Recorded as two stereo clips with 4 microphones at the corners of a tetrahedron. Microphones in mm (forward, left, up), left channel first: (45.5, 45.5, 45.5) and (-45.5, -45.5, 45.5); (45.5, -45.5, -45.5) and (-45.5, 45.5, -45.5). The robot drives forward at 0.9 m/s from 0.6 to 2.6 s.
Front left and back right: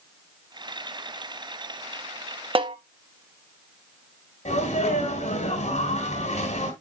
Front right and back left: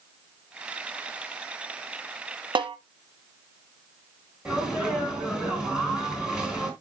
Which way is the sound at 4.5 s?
50° left.